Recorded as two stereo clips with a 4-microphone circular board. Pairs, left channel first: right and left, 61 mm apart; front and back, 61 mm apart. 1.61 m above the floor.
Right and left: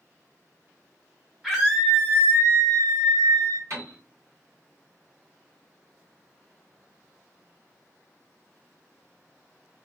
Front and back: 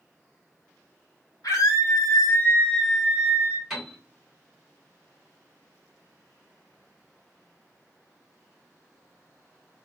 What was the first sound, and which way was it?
A scream, 15° left.